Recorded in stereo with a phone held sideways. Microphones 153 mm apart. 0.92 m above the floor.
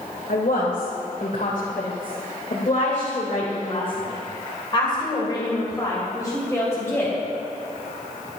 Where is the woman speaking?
80° left, 3 m; by 7.2 s 15° left (ahead or behind), 4 m.